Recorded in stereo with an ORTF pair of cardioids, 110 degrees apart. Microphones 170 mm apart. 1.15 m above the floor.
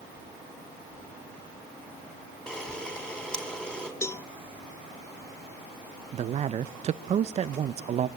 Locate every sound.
2.5 s a camera shutter: 5° left, 5 m
4.0 s a cowbell: 15° left, 0.9 m
6.1 s a man speaking: 40° right, 0.7 m